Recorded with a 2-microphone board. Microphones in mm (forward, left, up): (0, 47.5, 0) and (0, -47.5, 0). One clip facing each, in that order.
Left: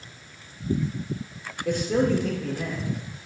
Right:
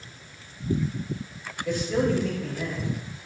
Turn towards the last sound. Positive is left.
turn(degrees=55)  # may be behind; listen again after turning